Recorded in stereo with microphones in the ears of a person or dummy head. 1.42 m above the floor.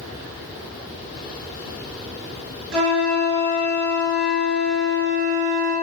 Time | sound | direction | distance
2.7 | a flute | 70° right (ahead or behind) | 4.5 m